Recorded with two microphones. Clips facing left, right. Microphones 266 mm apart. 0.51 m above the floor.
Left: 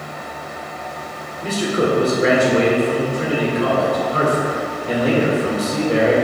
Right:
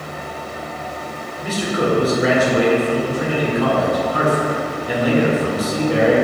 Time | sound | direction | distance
1.4 | a man speaking | 30° left (ahead or behind) | 1.9 m